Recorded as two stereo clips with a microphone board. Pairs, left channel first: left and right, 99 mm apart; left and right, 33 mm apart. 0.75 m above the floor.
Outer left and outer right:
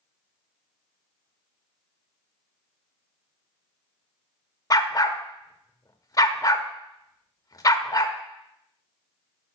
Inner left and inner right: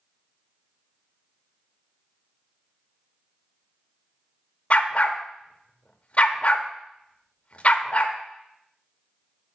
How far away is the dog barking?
About 0.6 m.